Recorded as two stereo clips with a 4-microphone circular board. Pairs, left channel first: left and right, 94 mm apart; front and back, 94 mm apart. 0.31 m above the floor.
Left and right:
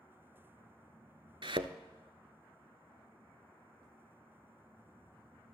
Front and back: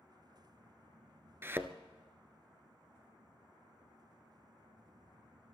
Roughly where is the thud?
Behind right.